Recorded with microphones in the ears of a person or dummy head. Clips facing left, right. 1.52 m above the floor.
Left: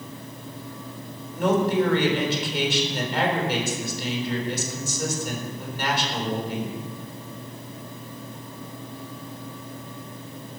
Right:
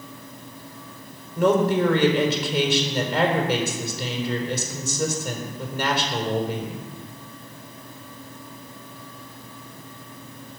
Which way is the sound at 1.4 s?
75° right (ahead or behind).